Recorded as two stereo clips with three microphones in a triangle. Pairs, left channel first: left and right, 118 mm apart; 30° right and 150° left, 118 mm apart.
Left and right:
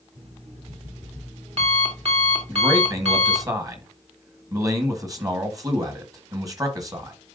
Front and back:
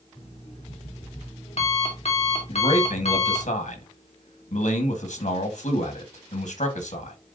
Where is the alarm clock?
55° right, 2 m.